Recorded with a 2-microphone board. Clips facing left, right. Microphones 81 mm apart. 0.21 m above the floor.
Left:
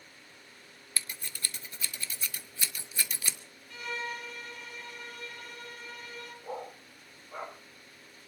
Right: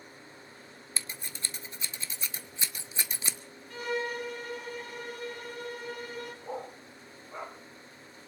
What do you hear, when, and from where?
1.0 s scissors: 25° right (ahead or behind), 0.8 m
3.7 s a violin: 45° right (ahead or behind), 3.5 m
6.4 s a dog barking: centre (ahead or behind), 3.5 m